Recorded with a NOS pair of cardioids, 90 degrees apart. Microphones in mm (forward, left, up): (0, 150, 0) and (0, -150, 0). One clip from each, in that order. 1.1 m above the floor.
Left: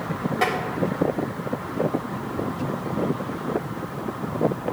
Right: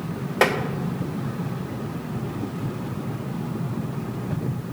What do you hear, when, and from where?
0.4 s tapping: 60° right, 1.5 m